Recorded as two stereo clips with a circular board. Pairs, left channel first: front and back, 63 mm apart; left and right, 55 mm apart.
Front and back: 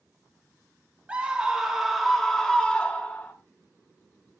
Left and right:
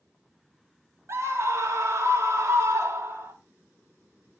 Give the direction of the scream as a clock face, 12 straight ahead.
4 o'clock.